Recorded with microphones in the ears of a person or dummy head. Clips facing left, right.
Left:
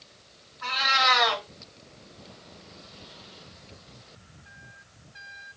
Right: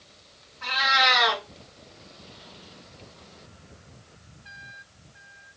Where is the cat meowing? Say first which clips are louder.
Right 2 dB; 45° right (ahead or behind), 2 m.